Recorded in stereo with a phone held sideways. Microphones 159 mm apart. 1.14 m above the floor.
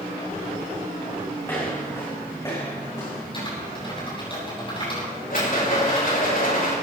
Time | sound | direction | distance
1.4 | footsteps | 15° left (ahead or behind) | 6 m
3.3 | typing on a keyboard | 35° left (ahead or behind) | 8 m
5.3 | a rattle | 65° left (ahead or behind) | 5.5 m